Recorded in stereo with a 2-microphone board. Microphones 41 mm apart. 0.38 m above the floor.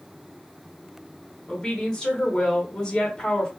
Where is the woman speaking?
20° left (ahead or behind), 1.2 m.